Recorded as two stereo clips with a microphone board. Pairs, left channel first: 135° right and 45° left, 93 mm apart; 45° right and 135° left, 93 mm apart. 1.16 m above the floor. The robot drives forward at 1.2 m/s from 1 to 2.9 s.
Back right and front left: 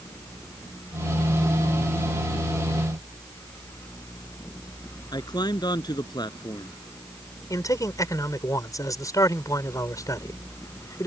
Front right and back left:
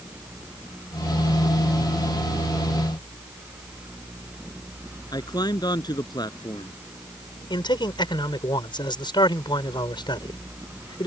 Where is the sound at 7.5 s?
80° right.